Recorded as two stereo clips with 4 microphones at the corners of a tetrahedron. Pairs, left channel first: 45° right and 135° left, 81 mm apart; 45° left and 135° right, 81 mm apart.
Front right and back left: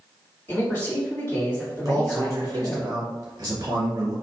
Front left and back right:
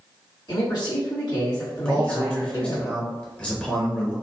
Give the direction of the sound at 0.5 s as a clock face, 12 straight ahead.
11 o'clock.